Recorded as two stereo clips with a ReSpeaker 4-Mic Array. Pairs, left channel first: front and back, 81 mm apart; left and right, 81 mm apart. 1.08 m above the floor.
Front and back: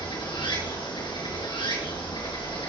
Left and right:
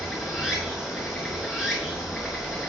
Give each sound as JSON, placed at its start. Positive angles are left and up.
{"t": 0.0, "sound": "running water", "azimuth_deg": -5, "distance_m": 6.0}